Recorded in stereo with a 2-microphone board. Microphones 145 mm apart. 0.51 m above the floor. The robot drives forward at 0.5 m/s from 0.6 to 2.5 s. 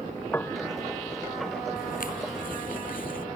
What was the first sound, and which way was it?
A piano, 15° left (ahead or behind).